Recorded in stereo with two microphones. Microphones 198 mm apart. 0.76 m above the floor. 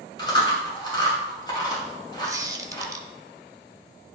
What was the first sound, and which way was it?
Chewing, 20° left (ahead or behind).